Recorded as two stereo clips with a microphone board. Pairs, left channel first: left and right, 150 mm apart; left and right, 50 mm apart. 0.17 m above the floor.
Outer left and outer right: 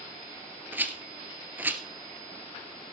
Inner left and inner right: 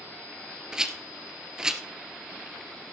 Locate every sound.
0.7 s a rattle: 10° right (ahead or behind), 1.3 m